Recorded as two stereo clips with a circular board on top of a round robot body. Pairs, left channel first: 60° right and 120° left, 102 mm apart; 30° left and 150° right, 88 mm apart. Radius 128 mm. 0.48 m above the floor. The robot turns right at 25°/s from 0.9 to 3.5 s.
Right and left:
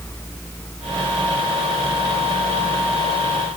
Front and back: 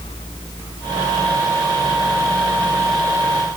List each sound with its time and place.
Only background noise.